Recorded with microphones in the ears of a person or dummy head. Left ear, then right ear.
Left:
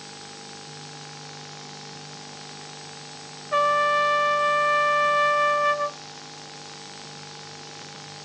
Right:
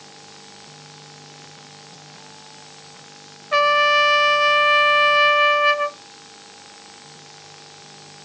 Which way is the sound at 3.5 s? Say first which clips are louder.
Right 5 dB; 75° right (ahead or behind).